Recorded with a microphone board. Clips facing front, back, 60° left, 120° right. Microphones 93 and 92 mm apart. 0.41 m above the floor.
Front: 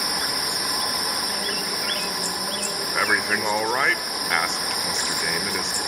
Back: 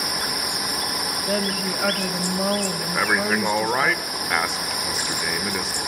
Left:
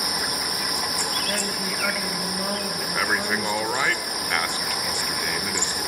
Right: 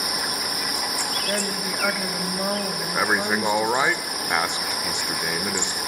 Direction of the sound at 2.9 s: 100° right.